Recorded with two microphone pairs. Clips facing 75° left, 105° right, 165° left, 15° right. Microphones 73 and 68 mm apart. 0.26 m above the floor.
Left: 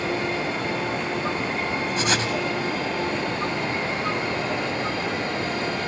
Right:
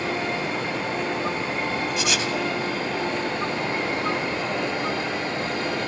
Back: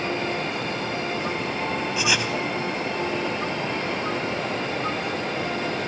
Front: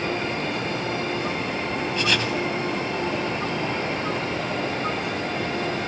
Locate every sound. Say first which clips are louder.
2.0 s writing: left 1 dB, front 1 dB; 90° left, 1.5 m